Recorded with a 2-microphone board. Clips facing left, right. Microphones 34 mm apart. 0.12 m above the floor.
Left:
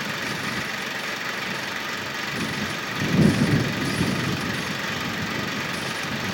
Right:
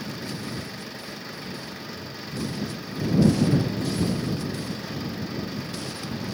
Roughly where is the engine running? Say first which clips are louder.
Left 6 dB; left.